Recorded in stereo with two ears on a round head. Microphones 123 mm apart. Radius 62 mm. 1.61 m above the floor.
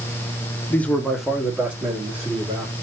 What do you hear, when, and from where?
0.7 s a man speaking: 15° left (ahead or behind), 0.8 m; by 2.7 s 15° right (ahead or behind), 2.5 m